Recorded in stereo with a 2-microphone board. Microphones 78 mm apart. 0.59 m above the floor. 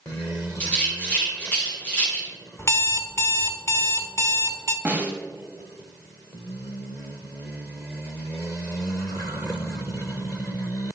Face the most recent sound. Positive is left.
turn(degrees=-20)  # may be behind; listen again after turning